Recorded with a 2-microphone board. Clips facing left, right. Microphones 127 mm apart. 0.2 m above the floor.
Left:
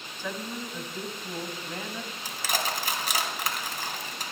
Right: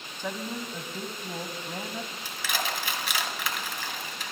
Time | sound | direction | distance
0.2 | a woman speaking | 15° right (ahead or behind) | 1.4 m
2.2 | crushing | 40° left (ahead or behind) | 3 m